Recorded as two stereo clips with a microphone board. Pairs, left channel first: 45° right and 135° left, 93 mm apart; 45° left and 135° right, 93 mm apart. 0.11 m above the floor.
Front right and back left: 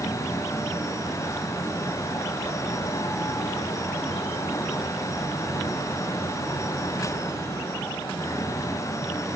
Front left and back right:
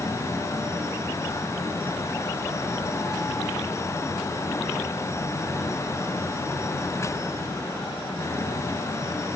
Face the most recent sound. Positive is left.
No sound to turn to.